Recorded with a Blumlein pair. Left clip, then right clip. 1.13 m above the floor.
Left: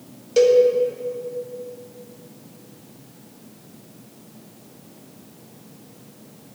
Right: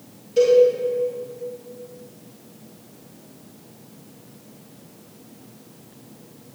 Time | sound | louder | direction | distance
0.4 | a cowbell | even | 55° left | 1.1 m